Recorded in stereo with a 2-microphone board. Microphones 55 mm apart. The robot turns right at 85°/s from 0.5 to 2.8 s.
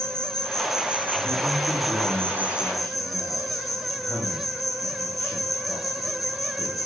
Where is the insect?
165° left, 1.1 m; by 6.9 s straight ahead, 1.1 m.